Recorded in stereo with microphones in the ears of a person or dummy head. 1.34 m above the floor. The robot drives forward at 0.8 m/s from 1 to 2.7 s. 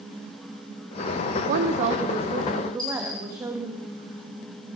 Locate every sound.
1.5 s a woman speaking: 55° right (ahead or behind), 0.6 m; by 3.8 s 20° right (ahead or behind), 1.4 m
2.8 s a dropped coin: 25° left (ahead or behind), 5 m